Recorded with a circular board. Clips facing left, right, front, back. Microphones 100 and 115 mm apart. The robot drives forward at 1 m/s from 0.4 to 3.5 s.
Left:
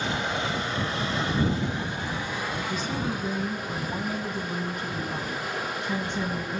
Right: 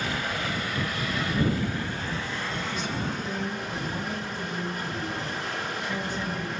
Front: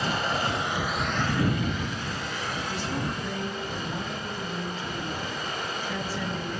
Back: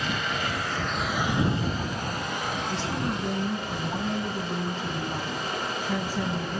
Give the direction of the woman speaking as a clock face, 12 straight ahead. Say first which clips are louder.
Left 2 dB, back 1 dB; 8 o'clock.